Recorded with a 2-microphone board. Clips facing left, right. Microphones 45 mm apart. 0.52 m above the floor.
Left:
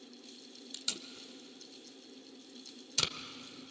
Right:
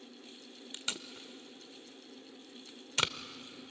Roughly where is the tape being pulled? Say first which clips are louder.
Right 3 dB; right.